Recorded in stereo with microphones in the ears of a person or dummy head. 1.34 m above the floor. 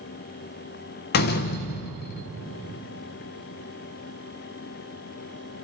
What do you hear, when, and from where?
1.1 s a door slam: 50° left (ahead or behind), 0.7 m